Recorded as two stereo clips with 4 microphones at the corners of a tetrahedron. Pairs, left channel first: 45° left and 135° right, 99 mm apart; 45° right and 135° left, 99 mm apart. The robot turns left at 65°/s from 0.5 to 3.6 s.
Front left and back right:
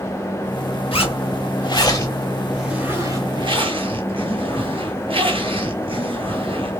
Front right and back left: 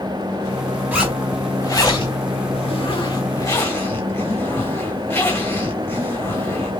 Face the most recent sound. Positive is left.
turn(degrees=-110)